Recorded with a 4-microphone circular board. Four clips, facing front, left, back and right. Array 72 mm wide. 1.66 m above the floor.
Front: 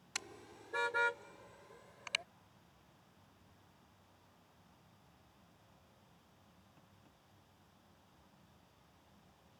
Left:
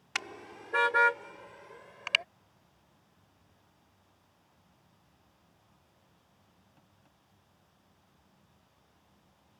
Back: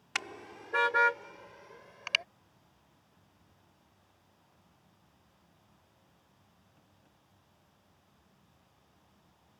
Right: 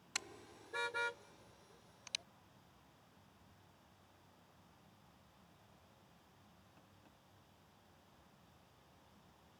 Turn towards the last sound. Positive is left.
turn(degrees=115)